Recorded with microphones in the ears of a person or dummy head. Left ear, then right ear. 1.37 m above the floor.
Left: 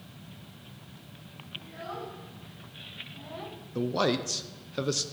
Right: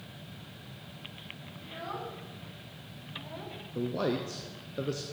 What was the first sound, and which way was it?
A child speaking, 20° right (ahead or behind).